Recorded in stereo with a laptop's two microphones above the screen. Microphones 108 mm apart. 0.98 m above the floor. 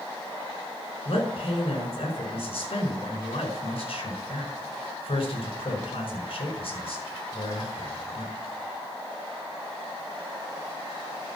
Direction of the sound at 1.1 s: 70° left (ahead or behind).